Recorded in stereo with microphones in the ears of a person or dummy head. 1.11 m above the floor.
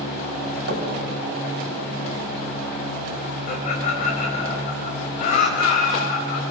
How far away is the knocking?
About 5 m.